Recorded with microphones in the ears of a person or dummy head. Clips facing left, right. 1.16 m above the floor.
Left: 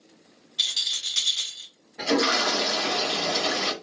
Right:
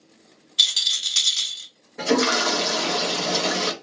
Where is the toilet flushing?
55° right (ahead or behind), 1.0 m.